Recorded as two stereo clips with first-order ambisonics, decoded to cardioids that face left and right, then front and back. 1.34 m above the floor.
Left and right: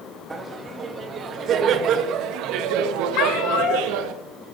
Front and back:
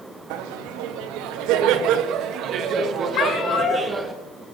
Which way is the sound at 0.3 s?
165° right.